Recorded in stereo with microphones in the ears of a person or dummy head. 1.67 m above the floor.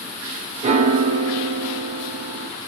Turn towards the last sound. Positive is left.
turn(degrees=-40)  # may be behind; listen again after turning